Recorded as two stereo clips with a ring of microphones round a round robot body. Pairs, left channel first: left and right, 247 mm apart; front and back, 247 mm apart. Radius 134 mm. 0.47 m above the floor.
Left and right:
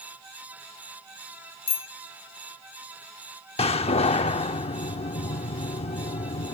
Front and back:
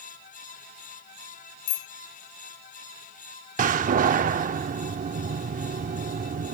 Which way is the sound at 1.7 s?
25° left.